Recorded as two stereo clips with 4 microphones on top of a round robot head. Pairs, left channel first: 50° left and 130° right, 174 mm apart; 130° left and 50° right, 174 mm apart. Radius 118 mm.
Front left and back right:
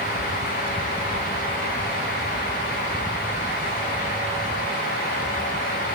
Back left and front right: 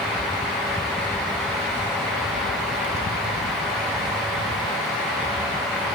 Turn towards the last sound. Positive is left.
No sound to turn to.